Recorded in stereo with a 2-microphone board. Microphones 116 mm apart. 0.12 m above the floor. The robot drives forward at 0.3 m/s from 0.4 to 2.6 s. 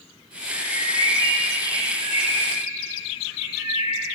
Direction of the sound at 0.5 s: 35° right (ahead or behind).